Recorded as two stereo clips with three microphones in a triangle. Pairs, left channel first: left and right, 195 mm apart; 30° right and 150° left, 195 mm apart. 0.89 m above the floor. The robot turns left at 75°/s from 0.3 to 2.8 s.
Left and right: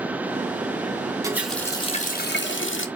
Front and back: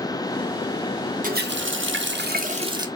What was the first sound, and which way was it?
A running tap, 160° right.